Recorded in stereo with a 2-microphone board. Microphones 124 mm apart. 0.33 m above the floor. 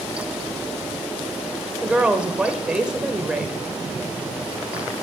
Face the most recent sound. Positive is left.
turn(degrees=-10)  # may be behind; listen again after turning